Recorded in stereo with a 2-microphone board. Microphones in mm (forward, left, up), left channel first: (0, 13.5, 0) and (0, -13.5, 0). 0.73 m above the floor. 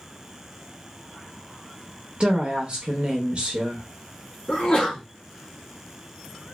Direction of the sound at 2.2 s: 40° right (ahead or behind).